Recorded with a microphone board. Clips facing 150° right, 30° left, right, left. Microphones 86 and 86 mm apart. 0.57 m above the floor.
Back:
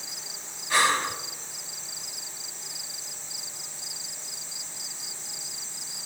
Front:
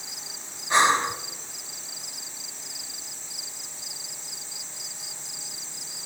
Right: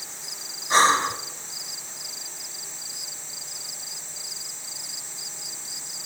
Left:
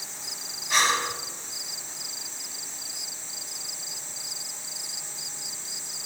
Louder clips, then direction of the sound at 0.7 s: Front 3 dB, right 6 dB; 35° right.